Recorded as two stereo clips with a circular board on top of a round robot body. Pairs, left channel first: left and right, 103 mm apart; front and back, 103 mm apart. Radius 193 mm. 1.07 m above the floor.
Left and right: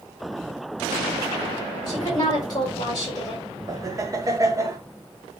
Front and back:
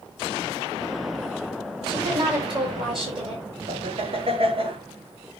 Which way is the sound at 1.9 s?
140° left.